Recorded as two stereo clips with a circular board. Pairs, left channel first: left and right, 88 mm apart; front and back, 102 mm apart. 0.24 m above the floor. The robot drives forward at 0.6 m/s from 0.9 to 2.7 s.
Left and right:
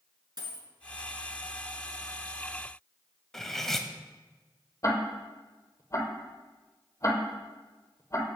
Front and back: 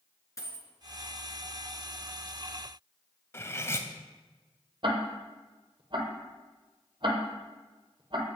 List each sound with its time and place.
0.4 s a dropped coin: 60° right, 1.5 m
3.3 s cutlery clinking: 10° left, 0.7 m
4.8 s ticking: 145° left, 1.5 m